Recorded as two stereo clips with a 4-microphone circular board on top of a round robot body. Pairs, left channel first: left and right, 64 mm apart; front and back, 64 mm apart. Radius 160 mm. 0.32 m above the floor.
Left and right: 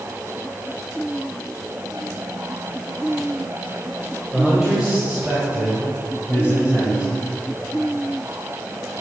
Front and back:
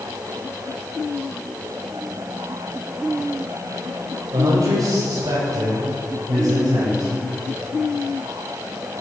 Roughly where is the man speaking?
Behind.